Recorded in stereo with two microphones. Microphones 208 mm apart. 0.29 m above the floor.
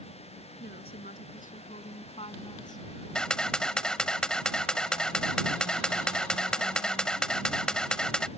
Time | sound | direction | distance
0.6 | a woman speaking | 55° left (ahead or behind) | ?
3.1 | a camera shutter | 5° left (ahead or behind) | ?